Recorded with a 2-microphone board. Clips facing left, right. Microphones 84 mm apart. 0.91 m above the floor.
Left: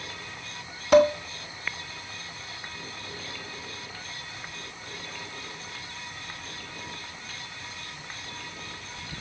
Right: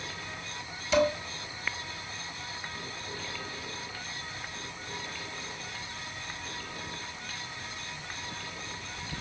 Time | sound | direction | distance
0.9 | dishes clattering | 55° left (ahead or behind) | 2.5 m